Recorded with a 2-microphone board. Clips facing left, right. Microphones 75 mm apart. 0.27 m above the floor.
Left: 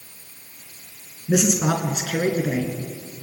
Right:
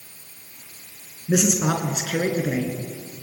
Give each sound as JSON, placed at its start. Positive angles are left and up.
{"t": 1.3, "sound": "a man speaking", "side_deg": -5, "distance_m": 4.0}